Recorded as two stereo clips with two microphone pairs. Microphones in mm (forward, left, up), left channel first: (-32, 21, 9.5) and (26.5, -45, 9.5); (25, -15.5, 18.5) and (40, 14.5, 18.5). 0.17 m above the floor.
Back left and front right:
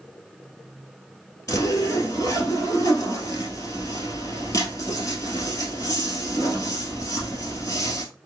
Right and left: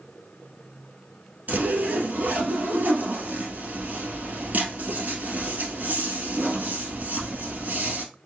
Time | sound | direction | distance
1.5 | a zipper | 80° left | 1.8 m